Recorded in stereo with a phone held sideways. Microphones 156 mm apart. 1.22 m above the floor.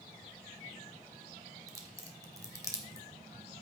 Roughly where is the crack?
Right.